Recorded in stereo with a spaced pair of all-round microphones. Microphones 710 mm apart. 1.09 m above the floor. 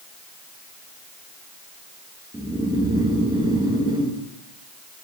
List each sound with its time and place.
2.3 s snoring: 5° right (ahead or behind), 0.8 m